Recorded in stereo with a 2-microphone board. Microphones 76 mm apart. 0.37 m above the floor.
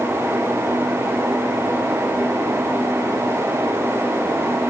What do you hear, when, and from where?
Only background noise.